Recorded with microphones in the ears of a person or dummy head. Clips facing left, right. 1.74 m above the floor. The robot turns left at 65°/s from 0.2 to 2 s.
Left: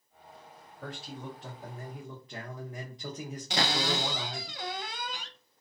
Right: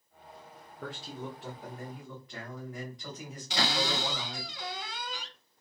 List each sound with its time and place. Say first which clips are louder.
0.8 s a man speaking: right 1 dB; 125° right, 0.6 m; by 4.5 s 155° left, 0.6 m
3.5 s a cupboard door: left 1 dB; 45° left (ahead or behind), 0.5 m